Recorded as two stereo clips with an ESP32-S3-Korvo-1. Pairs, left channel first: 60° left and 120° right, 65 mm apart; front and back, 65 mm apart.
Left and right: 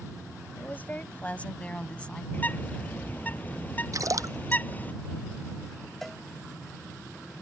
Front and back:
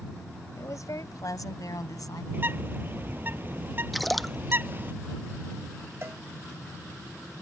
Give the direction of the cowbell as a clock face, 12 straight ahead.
7 o'clock.